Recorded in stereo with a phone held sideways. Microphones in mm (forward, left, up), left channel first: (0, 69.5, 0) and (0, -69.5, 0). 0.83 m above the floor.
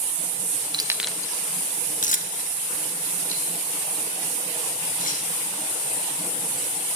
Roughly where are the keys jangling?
Right.